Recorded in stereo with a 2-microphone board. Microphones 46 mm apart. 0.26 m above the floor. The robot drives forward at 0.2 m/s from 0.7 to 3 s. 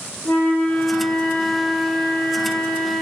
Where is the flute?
35° left (ahead or behind), 1.1 m; by 3.0 s 40° left (ahead or behind), 1.0 m.